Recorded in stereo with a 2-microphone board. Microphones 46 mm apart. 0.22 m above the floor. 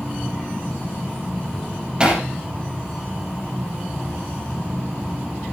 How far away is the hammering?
About 5 m.